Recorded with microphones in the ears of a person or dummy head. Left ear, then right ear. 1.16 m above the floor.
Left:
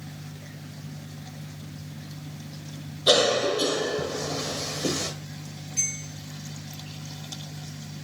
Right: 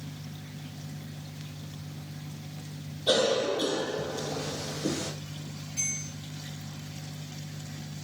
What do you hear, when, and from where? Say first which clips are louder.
3.1 s a cough: left 5 dB; 55° left (ahead or behind), 0.7 m
5.8 s a bell: left 4 dB; 10° left (ahead or behind), 0.6 m